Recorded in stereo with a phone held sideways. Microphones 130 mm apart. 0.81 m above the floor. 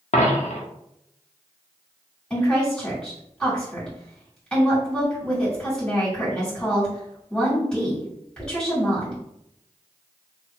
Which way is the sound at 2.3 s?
5° left (ahead or behind).